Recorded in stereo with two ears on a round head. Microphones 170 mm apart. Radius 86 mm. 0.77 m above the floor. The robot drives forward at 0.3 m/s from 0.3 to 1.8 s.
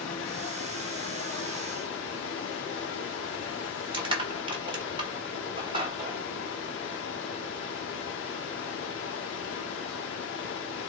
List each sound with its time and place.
0.0 s running water: 70° left (ahead or behind), 1.1 m
3.9 s crushing: 30° right (ahead or behind), 1.5 m